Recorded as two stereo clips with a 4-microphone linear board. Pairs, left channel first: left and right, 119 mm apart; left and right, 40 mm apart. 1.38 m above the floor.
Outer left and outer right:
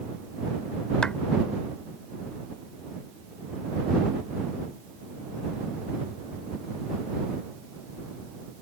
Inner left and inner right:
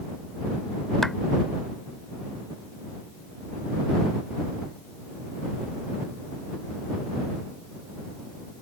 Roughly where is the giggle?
I don't hear a giggle.